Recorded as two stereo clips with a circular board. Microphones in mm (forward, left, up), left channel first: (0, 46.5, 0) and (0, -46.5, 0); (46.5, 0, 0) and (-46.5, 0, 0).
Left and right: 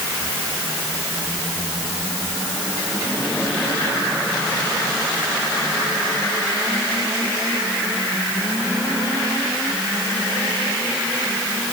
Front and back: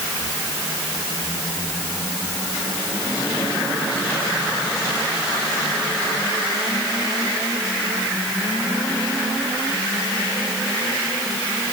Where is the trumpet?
I don't hear a trumpet.